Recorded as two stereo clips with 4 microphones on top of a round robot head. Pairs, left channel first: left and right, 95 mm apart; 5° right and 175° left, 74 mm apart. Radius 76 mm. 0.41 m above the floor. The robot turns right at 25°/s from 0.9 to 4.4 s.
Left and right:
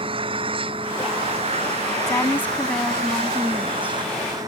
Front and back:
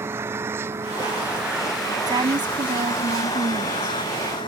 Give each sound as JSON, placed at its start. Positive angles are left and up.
{"t": 0.0, "sound": "an engine running", "azimuth_deg": -120}
{"t": 2.1, "sound": "a woman speaking", "azimuth_deg": 150}